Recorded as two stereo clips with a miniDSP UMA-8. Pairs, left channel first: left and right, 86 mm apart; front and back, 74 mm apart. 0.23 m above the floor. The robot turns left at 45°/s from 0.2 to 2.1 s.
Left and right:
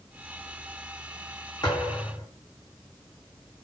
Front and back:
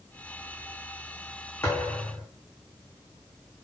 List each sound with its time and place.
1.6 s a thud: 55° left, 6 m; by 2.3 s 35° left, 6 m